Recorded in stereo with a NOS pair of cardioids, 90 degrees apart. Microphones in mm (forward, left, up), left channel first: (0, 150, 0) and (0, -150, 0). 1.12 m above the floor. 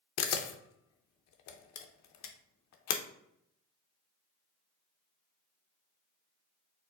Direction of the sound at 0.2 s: 65° left.